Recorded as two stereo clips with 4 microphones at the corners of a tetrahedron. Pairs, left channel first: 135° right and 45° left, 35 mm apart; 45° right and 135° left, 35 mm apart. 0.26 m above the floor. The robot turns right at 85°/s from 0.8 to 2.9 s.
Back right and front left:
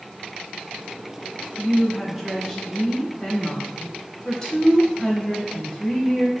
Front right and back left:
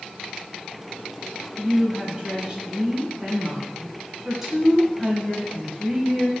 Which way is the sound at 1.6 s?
80° left.